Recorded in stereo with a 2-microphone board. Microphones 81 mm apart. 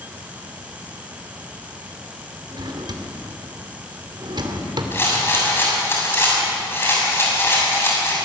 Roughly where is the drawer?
Right.